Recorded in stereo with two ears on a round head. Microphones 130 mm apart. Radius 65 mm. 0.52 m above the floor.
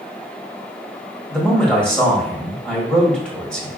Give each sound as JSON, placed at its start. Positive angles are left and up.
{"t": 1.3, "sound": "a man speaking", "side_deg": 5, "distance_m": 1.2}